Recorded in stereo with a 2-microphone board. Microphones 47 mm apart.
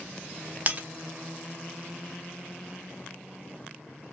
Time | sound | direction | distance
0.7 | breaking glass | 30° right (ahead or behind) | 0.7 m